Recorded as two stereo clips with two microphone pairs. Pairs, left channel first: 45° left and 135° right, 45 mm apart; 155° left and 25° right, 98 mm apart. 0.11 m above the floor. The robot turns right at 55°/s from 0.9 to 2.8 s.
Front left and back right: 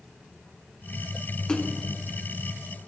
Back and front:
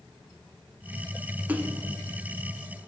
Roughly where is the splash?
Ahead.